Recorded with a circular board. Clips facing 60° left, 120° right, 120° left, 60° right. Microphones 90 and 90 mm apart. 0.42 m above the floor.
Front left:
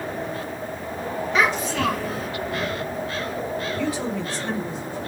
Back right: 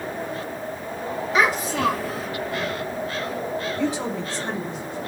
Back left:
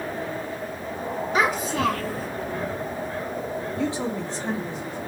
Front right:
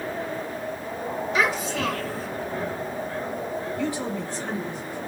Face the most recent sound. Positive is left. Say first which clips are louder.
# back right 1 dB, back left 3 dB
turn(degrees=180)